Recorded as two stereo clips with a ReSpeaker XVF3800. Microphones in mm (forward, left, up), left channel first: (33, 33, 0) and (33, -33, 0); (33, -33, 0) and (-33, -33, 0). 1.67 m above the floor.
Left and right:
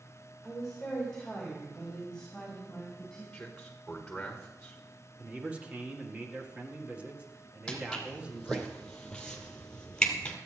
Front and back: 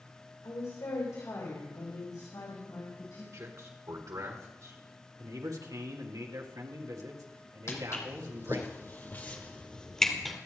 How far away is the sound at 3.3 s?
About 1.8 m.